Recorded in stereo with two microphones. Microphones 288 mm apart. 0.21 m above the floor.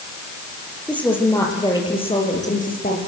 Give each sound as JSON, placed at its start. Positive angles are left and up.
{"t": 0.9, "sound": "a woman speaking", "side_deg": 5, "distance_m": 6.5}